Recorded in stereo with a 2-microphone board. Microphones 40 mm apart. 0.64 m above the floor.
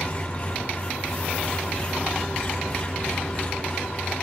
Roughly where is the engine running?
Left.